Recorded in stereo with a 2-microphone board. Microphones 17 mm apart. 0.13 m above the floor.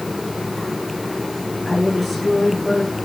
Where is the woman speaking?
5° left (ahead or behind), 8.5 m.